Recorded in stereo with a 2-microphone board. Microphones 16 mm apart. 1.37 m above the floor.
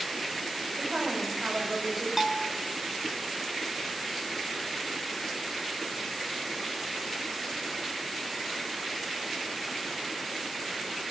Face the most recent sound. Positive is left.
turn(degrees=-15)  # may be behind; listen again after turning